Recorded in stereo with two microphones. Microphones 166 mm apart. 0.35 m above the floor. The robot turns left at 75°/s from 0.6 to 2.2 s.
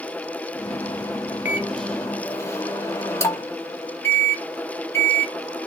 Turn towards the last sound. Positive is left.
turn(degrees=15)  # may be behind; listen again after turning